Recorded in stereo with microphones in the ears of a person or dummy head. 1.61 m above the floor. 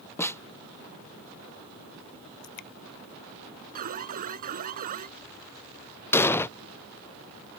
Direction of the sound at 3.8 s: 50° right (ahead or behind).